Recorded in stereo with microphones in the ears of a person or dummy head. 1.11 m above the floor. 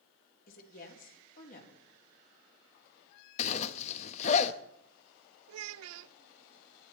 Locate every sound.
0.5 s a woman speaking: 50° left (ahead or behind), 3 m
3.4 s a zipper: 40° left (ahead or behind), 0.8 m
5.5 s a child speaking: 85° right, 0.7 m